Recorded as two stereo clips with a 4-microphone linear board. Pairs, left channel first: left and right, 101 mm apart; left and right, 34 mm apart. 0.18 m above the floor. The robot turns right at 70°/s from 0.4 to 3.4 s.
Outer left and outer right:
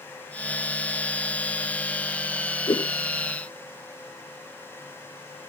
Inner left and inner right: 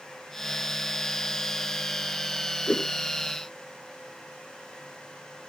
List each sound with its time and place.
2.7 s a whoosh: 50° left (ahead or behind); by 2.9 s 55° left (ahead or behind)